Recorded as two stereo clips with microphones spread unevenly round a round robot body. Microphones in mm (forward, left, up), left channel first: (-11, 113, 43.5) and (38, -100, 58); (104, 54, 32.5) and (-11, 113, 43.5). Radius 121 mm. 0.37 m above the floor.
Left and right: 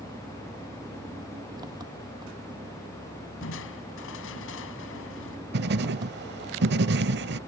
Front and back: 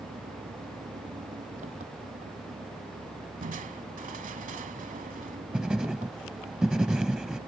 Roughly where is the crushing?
Behind left.